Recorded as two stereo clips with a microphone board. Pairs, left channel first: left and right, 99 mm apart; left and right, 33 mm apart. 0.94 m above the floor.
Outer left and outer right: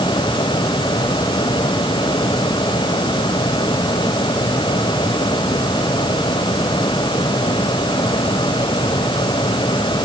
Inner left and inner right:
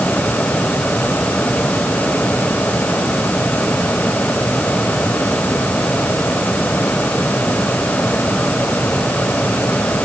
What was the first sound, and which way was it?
Only background noise.